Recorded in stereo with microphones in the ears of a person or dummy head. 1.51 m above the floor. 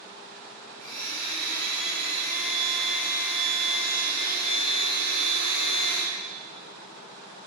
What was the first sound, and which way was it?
A blender, 50° right (ahead or behind).